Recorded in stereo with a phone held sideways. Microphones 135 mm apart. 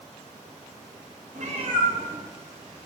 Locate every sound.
1.4 s a cat meowing: 70° right (ahead or behind), 0.8 m; by 2.9 s centre (ahead or behind), 1.9 m